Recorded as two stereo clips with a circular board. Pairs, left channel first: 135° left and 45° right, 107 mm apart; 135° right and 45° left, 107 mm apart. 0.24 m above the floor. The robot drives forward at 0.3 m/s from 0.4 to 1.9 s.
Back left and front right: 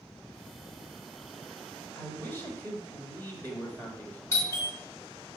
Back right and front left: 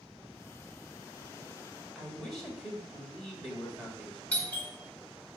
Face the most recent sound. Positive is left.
turn(degrees=165)